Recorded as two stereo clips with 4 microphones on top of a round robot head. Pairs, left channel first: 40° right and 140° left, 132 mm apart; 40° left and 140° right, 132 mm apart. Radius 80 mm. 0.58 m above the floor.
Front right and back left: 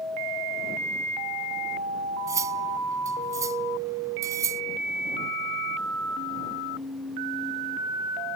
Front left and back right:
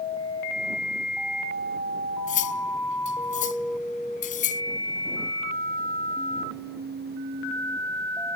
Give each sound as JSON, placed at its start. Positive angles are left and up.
{"t": 2.3, "sound": "cutlery clinking", "azimuth_deg": 70}